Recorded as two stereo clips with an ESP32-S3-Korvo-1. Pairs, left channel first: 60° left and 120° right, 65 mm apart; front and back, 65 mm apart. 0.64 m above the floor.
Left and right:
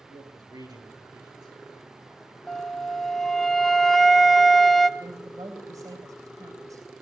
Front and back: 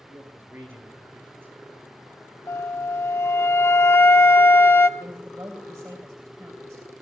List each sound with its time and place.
0.1 s a man speaking: 120° right, 9 m
2.5 s a flute: 25° right, 0.6 m
5.0 s a woman speaking: 115° right, 3 m